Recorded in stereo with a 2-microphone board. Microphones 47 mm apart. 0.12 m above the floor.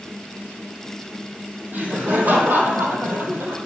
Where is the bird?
No bird in this recording.